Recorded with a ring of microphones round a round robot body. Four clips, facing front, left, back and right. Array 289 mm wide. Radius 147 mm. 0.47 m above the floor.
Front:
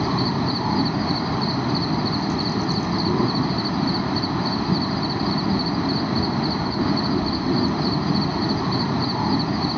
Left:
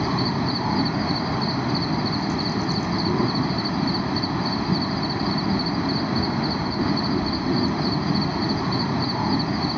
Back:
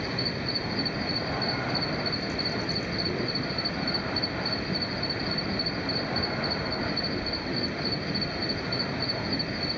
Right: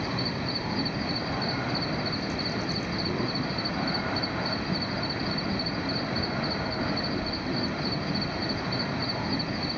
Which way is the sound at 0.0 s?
35° left.